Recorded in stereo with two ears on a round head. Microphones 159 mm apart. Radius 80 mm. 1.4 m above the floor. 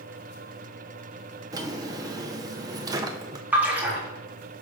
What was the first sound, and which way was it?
A drawer, 20° right (ahead or behind).